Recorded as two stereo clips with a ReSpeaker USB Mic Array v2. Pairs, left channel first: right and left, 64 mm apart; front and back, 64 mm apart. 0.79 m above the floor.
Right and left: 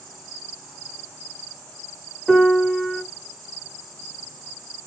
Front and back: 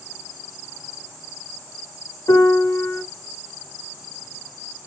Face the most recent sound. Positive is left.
turn(degrees=5)